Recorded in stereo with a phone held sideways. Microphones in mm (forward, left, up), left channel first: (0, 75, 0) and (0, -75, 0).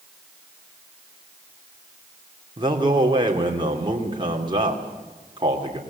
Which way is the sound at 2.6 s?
30° right (ahead or behind).